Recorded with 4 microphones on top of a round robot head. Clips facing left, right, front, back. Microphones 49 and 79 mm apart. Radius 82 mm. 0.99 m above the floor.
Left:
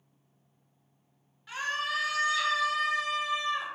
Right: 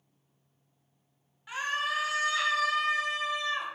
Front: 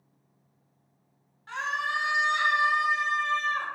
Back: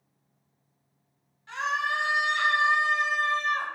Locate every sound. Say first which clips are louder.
1.5 s a scream: right 1 dB, back 2 dB; 20° right, 1.1 m; by 3.7 s 115° right, 1.0 m